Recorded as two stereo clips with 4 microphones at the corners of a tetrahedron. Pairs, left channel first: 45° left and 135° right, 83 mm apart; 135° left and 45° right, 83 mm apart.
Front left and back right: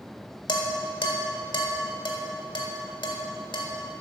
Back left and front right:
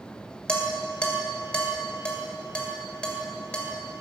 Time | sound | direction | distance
0.5 | dishes clattering | 60° left | 1.7 m